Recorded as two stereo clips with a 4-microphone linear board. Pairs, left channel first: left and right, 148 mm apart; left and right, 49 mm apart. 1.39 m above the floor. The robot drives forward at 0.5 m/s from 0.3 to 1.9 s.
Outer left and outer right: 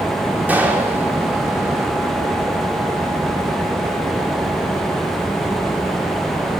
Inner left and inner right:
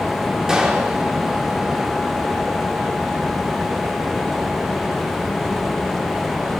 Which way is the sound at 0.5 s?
10° right (ahead or behind).